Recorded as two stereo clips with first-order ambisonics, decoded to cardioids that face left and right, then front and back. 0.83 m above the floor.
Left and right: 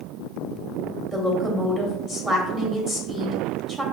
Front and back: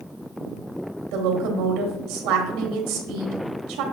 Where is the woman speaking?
170° right, 1.2 m.